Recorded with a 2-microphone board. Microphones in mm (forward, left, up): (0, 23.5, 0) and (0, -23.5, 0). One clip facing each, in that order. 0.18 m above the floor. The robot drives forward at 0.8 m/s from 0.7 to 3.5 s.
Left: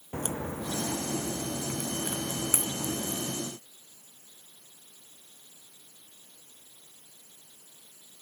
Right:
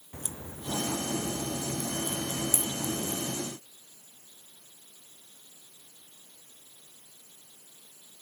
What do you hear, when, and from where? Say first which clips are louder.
0.1 s a crack: left 9 dB; 60° left (ahead or behind); by 3.4 s 40° left (ahead or behind)